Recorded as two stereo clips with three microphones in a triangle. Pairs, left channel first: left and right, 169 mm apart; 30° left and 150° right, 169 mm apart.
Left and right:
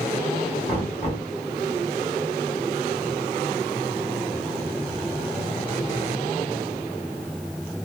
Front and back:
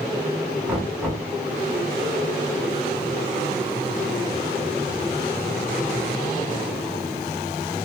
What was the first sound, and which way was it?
Knocking, 130° left.